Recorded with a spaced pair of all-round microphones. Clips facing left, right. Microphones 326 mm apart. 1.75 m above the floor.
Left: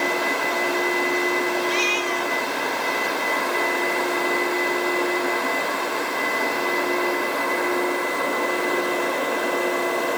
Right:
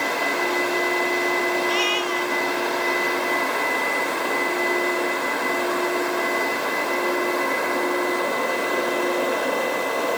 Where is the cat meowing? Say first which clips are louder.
Even; 30° left (ahead or behind).